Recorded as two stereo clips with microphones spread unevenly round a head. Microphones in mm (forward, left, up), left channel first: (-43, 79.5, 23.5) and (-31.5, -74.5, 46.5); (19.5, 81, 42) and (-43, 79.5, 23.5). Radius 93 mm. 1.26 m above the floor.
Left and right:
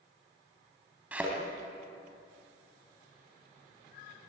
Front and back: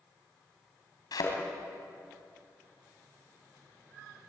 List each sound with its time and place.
1.1 s a thud: 5° right, 3.5 m